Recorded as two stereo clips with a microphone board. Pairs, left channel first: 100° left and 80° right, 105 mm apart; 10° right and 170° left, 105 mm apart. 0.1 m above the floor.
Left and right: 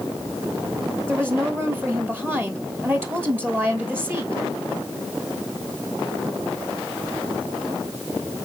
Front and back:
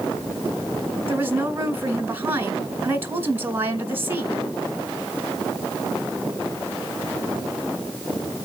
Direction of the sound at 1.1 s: 135° right.